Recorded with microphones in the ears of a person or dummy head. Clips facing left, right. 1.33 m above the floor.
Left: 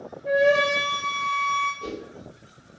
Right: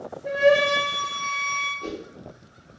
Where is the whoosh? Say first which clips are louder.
Right 1 dB; 10° left (ahead or behind), 2.5 m.